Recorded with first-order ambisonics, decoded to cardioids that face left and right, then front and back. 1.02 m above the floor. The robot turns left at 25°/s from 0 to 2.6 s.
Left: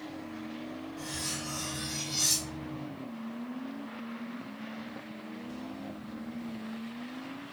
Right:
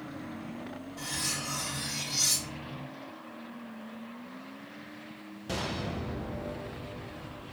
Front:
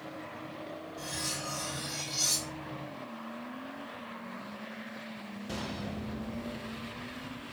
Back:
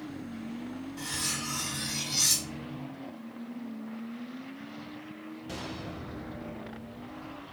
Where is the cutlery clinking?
155° right, 1.2 m; by 2.8 s 165° left, 1.2 m.